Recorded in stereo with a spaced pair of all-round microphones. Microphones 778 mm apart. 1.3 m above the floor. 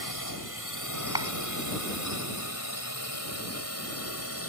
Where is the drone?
25° left (ahead or behind); by 4.5 s 15° left (ahead or behind).